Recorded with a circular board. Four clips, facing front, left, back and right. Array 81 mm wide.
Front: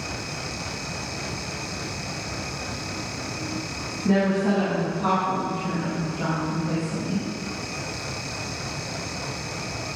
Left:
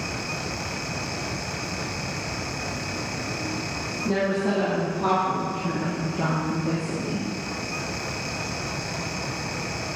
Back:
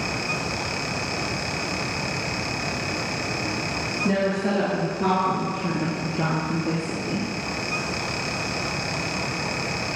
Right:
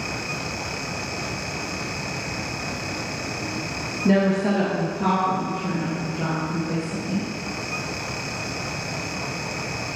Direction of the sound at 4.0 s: 105° right.